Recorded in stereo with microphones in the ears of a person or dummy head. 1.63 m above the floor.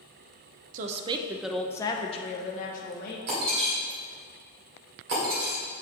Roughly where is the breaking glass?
Right.